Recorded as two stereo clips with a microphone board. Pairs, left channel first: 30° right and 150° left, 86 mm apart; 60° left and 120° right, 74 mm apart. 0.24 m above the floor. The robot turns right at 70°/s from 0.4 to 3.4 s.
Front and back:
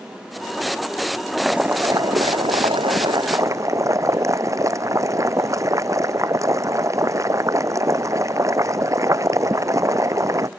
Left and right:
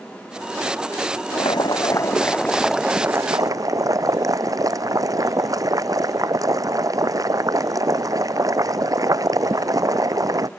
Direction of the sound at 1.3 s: 55° left.